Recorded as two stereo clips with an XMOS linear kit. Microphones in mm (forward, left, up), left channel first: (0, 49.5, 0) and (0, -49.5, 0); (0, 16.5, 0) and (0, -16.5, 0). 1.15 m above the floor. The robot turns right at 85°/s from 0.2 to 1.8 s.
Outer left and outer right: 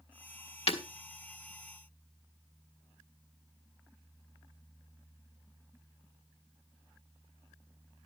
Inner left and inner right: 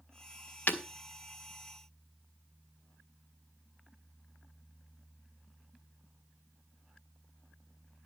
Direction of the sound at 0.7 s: 70° left (ahead or behind).